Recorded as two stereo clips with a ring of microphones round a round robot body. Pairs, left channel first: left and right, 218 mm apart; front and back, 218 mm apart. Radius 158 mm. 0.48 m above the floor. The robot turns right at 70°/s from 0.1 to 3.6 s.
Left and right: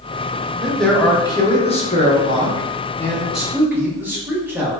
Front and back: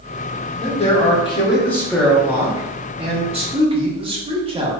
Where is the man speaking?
10° right, 0.7 m; by 4.7 s 160° right, 0.7 m.